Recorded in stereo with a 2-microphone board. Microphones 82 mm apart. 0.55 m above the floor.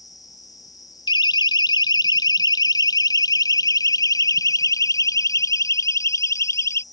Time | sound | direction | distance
0.0 | an insect | 50° left (ahead or behind) | ?
1.1 | a siren | 65° left (ahead or behind) | ?